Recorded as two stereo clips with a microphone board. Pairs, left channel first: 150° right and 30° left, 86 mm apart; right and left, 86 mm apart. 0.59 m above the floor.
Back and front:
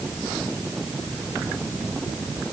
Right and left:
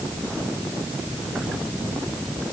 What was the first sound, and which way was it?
Only background noise.